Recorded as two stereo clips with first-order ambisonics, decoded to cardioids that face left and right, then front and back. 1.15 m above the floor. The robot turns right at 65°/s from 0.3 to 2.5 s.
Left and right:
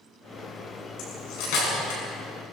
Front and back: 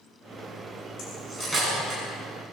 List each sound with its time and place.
1.0 s cutlery clinking: 55° left, 8 m; by 2.0 s 120° left, 8 m